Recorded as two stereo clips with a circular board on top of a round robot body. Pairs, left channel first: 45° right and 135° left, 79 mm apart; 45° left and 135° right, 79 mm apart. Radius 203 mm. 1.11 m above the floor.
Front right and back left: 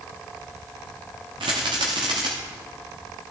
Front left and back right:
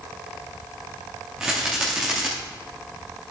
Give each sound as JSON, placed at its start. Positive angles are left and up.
{"t": 1.4, "sound": "a rattle", "azimuth_deg": 145, "distance_m": 0.7}